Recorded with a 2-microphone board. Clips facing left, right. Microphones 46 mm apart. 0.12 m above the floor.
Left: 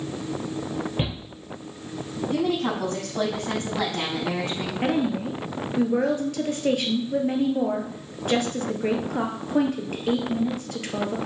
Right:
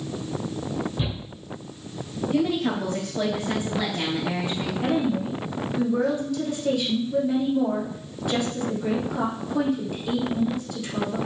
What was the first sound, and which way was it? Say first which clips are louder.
A shout: left 1 dB; 65° left (ahead or behind).